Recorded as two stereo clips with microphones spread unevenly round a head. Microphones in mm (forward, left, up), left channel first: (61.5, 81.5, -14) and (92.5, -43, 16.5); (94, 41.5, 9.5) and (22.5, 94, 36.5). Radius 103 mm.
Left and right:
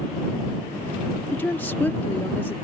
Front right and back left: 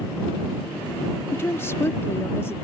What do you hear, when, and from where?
1.3 s a woman speaking: 30° left